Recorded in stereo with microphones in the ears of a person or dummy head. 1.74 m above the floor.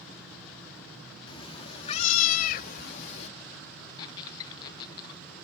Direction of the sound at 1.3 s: 20° left (ahead or behind).